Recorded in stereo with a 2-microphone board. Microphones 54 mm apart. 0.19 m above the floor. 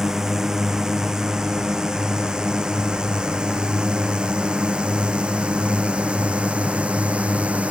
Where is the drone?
10° right (ahead or behind); by 7.7 s 25° right (ahead or behind).